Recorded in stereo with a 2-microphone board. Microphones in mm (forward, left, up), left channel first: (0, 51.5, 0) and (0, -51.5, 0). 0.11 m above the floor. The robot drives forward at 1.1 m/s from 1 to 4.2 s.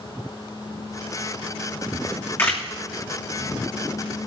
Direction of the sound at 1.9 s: 30° left (ahead or behind).